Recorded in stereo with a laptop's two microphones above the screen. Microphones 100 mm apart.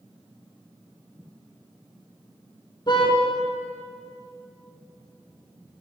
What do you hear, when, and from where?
2.9 s a car horn: 45° left (ahead or behind), 7 m